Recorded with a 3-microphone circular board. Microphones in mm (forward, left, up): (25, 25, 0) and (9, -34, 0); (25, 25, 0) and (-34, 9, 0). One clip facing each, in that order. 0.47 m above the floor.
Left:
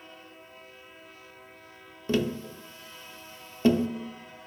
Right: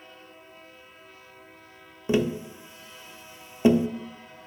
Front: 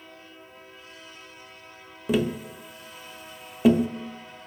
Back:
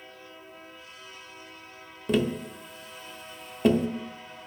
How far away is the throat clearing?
No throat clearing in this recording.